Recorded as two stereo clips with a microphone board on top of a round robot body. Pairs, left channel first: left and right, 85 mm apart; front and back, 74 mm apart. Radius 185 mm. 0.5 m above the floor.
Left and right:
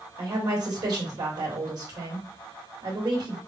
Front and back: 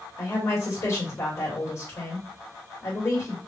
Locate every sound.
0.2 s a woman speaking: 50° right, 3 m